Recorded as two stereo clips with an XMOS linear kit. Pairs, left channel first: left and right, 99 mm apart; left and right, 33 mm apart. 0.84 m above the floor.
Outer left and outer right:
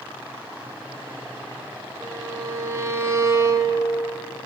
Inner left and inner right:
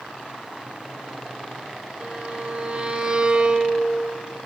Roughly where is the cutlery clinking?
I don't hear cutlery clinking.